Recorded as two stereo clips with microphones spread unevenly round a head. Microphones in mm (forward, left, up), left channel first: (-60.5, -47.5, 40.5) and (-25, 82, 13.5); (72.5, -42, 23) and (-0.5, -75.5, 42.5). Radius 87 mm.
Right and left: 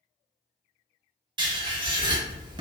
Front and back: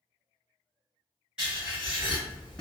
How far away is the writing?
About 0.7 m.